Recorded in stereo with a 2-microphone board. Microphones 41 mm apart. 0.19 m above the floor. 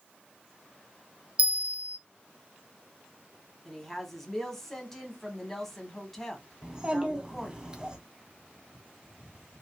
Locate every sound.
1.4 s a bell: 35° right (ahead or behind), 0.7 m
3.6 s a woman speaking: 5° left (ahead or behind), 1.0 m
6.6 s a child speaking: 20° right (ahead or behind), 0.9 m